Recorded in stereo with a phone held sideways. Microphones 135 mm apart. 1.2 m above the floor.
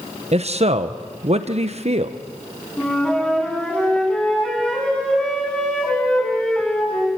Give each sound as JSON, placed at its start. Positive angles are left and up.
{"t": 0.3, "sound": "a man speaking", "side_deg": -50, "distance_m": 1.0}
{"t": 2.8, "sound": "a flute", "side_deg": 5, "distance_m": 7.0}